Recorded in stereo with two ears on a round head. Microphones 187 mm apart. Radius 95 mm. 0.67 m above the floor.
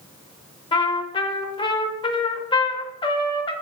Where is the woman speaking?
No woman speaking in this recording.